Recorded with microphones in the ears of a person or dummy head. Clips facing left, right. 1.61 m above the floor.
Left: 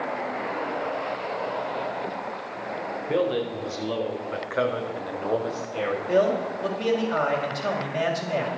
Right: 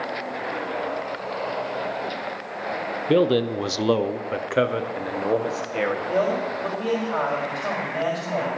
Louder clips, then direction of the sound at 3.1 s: Right 6 dB; 50° right (ahead or behind).